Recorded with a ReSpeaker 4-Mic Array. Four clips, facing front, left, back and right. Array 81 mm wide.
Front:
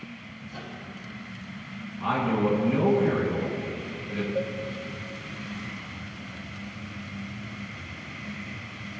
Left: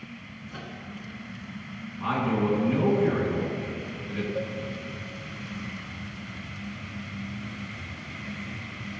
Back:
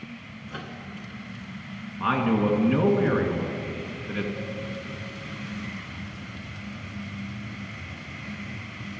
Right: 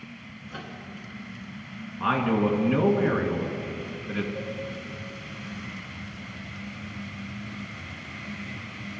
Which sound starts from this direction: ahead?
A cowbell, at 4.3 s.